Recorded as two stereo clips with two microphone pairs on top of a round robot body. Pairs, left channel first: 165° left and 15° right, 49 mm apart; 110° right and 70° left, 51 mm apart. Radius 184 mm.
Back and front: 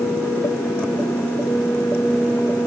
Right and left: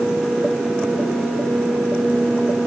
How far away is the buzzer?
No buzzer in this recording.